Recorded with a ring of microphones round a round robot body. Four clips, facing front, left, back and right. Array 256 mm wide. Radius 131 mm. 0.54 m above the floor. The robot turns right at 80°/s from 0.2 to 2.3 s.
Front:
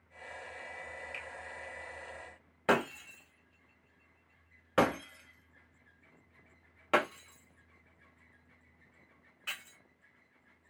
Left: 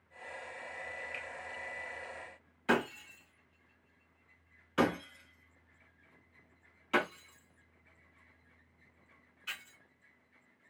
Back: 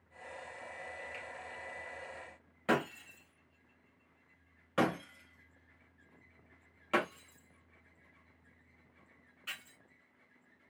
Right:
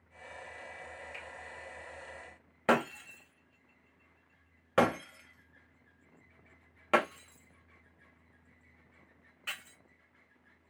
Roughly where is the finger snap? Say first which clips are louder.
Left 2 dB, front 1 dB; ahead left.